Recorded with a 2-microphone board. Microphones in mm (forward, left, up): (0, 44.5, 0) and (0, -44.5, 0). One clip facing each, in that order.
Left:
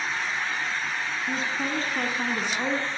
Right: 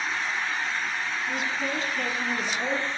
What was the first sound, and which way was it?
A woman speaking, 30° left (ahead or behind).